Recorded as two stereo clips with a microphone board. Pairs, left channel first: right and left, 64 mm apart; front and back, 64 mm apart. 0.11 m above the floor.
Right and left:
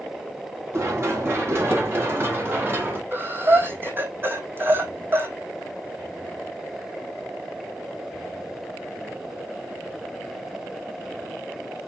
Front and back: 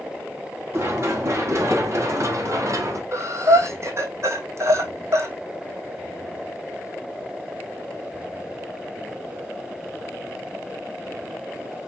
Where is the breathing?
145° left, 1.6 m.